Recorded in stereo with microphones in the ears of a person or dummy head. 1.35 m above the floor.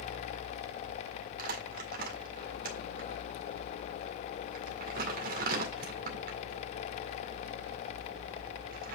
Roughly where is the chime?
No chime in this recording.